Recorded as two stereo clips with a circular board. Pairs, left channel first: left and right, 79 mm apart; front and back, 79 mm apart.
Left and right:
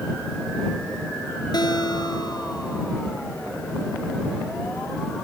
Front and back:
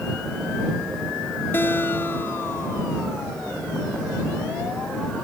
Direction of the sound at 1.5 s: 60° left.